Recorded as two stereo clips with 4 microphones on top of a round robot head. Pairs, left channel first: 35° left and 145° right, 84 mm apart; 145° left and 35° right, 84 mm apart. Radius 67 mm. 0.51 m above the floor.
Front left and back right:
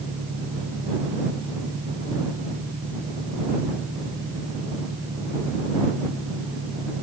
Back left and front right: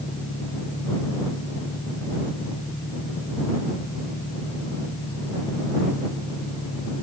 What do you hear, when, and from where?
0.0 s an engine running: 170° left